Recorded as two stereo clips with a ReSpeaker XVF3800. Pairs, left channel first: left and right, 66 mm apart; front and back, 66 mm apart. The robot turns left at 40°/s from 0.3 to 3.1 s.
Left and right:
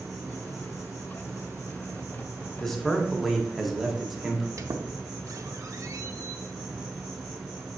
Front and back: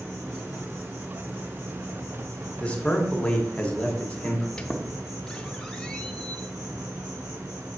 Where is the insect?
65° right, 2 m; by 7.8 s straight behind, 2 m.